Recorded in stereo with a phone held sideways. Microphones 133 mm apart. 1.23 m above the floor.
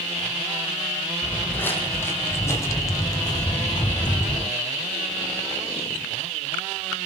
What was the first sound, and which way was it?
Footsteps, 10° left (ahead or behind).